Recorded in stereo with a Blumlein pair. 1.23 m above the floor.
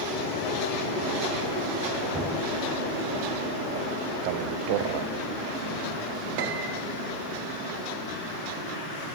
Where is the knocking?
Straight ahead, 4 m.